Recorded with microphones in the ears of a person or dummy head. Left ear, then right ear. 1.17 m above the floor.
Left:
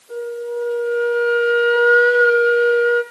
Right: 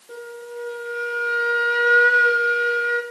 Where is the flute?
5° right (ahead or behind), 9.5 m.